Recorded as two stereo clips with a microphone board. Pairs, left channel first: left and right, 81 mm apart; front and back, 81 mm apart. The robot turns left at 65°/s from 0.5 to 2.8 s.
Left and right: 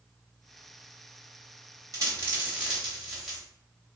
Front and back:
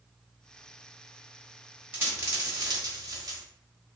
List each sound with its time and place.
1.9 s a dropped coin: 120° right, 1.2 m; by 3.4 s 175° right, 1.2 m